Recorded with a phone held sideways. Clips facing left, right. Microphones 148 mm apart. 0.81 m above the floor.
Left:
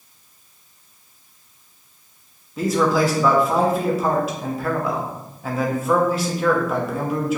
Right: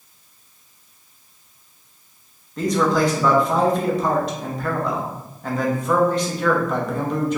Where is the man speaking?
5° left (ahead or behind), 0.7 m.